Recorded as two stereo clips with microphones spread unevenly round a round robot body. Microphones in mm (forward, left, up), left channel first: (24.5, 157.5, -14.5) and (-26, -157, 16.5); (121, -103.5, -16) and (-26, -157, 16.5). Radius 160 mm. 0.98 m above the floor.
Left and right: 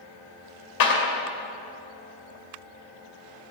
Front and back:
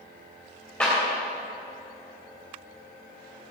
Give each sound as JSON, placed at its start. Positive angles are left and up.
{"t": 0.8, "sound": "a clap", "azimuth_deg": 105, "distance_m": 2.5}